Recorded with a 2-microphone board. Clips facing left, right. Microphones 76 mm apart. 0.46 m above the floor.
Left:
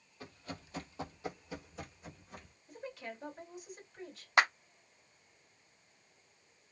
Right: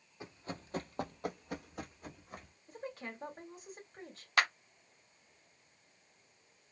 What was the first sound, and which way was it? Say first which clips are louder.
Running footsteps: right 2 dB; 20° right (ahead or behind).